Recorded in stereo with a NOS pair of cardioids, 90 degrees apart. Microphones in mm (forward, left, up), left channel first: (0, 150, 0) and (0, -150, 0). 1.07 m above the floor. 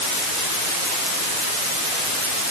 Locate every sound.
Only background noise.